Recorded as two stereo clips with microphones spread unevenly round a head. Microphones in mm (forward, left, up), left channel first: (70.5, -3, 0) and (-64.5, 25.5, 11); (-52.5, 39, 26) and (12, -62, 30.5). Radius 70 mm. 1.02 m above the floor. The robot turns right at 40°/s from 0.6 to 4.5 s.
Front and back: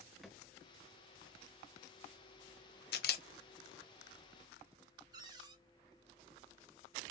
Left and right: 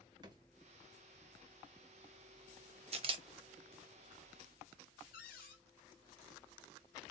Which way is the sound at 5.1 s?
110° left.